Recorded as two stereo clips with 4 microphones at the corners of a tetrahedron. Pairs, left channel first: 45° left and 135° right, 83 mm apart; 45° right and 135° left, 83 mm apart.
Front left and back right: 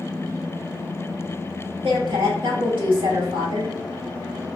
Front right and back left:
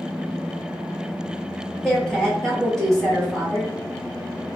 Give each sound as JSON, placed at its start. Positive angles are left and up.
{"t": 1.8, "sound": "a woman speaking", "azimuth_deg": -130, "distance_m": 1.7}